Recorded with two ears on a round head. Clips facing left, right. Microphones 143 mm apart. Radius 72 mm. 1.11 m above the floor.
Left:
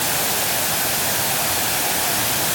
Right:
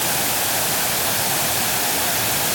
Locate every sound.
Only background noise.